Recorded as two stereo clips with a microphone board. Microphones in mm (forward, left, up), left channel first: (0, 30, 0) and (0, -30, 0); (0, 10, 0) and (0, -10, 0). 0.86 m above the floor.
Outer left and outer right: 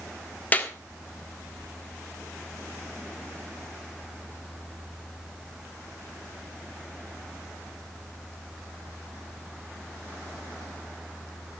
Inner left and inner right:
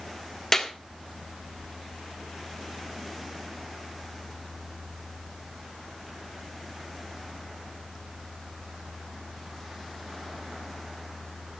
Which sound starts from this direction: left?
A clap, at 0.5 s.